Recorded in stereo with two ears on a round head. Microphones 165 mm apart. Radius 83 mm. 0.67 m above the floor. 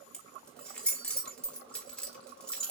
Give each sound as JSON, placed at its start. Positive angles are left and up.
{"t": 0.1, "sound": "keys jangling", "side_deg": 5, "distance_m": 1.4}